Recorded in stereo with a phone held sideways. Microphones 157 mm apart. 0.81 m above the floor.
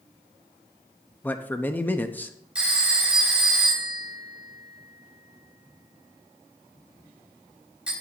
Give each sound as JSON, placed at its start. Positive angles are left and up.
{"t": 1.2, "sound": "a man speaking", "side_deg": 10, "distance_m": 0.8}
{"t": 2.5, "sound": "a phone ringing", "side_deg": -5, "distance_m": 3.5}